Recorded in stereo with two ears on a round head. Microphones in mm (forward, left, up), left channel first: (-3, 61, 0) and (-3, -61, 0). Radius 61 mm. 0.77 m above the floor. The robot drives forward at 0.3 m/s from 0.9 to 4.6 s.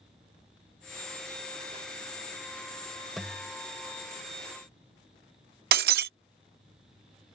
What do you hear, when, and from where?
3.2 s a guitar: centre (ahead or behind)
5.7 s breaking glass: 80° right